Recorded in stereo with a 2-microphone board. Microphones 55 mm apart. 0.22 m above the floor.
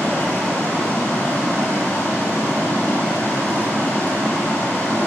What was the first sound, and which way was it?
Running water, 40° left (ahead or behind).